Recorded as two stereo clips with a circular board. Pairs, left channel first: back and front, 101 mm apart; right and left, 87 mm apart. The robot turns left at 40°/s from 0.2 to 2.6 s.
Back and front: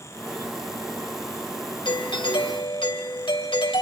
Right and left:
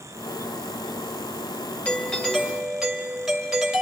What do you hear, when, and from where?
1.9 s a doorbell: 155° right, 2.5 m; by 3.8 s 175° left, 2.5 m